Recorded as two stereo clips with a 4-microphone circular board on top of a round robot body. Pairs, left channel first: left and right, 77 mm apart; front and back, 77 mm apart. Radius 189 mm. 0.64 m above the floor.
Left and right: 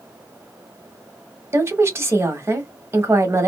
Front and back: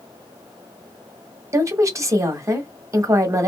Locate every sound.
1.5 s a woman speaking: 140° right, 1.3 m